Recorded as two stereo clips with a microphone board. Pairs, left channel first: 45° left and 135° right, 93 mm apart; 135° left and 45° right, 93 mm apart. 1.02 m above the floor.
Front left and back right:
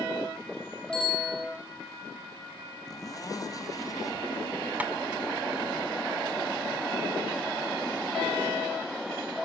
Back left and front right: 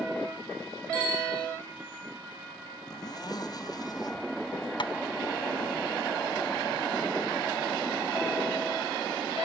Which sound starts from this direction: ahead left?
A bicycle bell, at 0.9 s.